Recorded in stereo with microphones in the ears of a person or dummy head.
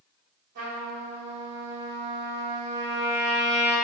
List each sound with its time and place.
0.6 s a trumpet: 55° right (ahead or behind), 4.5 m